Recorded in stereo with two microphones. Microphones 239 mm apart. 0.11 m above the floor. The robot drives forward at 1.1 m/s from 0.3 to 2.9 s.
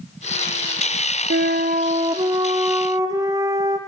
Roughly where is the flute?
Right.